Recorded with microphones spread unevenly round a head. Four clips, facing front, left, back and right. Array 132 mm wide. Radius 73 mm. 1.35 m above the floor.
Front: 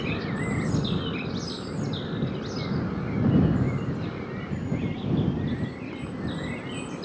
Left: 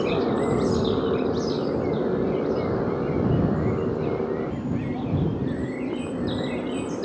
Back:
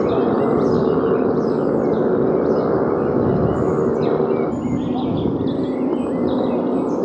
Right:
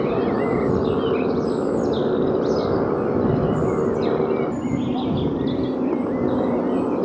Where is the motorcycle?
175° right; by 7.1 s 155° right.